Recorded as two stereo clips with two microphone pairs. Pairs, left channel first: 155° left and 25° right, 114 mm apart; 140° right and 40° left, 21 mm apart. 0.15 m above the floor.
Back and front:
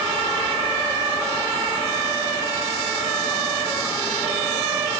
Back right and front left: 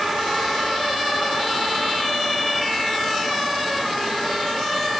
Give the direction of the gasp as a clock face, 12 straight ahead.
I don't hear a gasp.